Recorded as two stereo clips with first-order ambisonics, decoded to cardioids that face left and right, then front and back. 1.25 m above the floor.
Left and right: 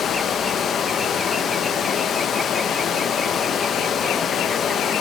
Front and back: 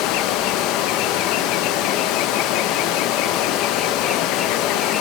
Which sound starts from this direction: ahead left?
Running water, at 0.0 s.